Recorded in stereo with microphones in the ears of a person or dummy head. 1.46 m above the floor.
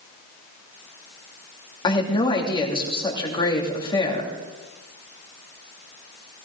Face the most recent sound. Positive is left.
turn(degrees=20)  # may be behind; listen again after turning